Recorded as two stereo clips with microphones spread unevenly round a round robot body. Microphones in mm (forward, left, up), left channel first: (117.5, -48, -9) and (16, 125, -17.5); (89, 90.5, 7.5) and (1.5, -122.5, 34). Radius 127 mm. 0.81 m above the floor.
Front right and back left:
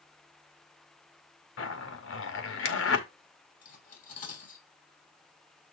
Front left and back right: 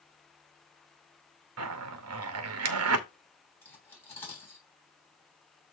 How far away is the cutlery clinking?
About 3 m.